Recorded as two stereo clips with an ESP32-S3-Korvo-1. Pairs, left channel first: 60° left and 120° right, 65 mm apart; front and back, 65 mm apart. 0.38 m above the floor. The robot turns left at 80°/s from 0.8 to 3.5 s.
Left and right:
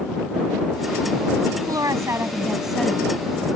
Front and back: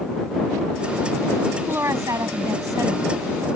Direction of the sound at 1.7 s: 125° right.